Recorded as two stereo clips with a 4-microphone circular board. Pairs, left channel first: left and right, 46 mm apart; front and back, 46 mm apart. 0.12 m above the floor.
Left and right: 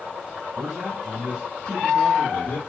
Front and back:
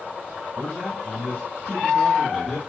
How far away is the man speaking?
About 2.5 m.